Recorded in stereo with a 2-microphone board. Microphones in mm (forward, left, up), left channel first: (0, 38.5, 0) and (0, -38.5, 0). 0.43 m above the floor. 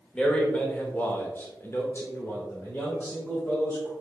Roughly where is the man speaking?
Centre.